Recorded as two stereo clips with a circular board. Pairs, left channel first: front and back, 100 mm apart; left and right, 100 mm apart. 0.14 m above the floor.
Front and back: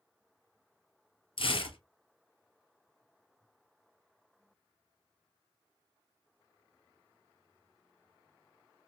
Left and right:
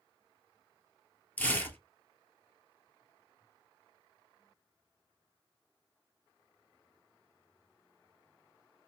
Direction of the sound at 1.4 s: 15° left.